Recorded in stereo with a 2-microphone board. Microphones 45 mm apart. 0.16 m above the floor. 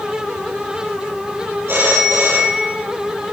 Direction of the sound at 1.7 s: 55° right (ahead or behind).